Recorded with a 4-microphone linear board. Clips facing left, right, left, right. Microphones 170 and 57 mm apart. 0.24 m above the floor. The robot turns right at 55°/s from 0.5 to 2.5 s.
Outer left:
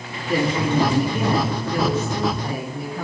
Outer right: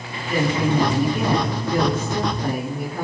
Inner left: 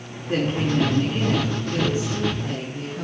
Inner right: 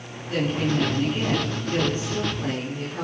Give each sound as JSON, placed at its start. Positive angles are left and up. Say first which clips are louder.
{"t": 0.3, "sound": "a woman speaking", "louder": "even, inner left 2 dB", "azimuth_deg": 140, "distance_m": 4.0}